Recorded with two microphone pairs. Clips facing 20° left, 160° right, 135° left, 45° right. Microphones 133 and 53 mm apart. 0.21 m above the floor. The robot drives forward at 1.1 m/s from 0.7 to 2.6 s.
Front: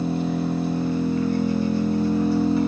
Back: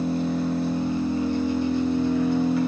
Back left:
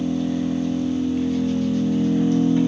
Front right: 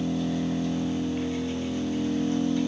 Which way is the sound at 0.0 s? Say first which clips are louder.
Even, back left 5 dB; 40° left.